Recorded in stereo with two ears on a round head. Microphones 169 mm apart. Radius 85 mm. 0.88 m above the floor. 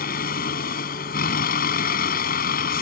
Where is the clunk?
No clunk in this recording.